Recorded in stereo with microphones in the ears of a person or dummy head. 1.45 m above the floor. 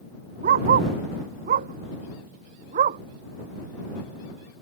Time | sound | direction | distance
0.4 | a dog barking | 50° right (ahead or behind) | ?